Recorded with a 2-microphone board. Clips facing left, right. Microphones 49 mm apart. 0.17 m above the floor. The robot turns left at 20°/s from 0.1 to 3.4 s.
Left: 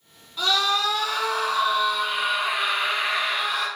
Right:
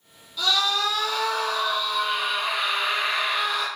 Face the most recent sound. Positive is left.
turn(degrees=5)